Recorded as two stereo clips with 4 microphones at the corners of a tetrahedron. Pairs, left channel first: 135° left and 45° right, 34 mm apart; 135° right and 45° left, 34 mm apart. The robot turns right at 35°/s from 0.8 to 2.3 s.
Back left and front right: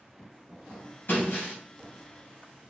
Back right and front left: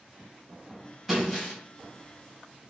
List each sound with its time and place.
1.1 s breaking glass: 130° left, 2.5 m; by 1.6 s 145° left, 2.5 m